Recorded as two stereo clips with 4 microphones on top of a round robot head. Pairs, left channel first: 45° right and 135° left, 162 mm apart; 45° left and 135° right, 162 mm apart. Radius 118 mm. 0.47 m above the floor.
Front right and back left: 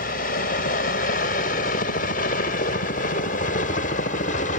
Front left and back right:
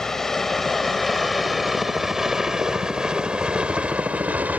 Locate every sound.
0.0 s a helicopter: 40° right; by 4.6 s 55° right